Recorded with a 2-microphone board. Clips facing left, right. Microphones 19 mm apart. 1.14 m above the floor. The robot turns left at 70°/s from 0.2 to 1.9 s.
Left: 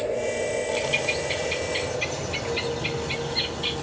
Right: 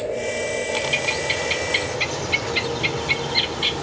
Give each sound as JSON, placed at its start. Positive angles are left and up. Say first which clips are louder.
{"t": 0.8, "sound": "a bird", "louder": "right 4 dB", "azimuth_deg": -15, "distance_m": 1.6}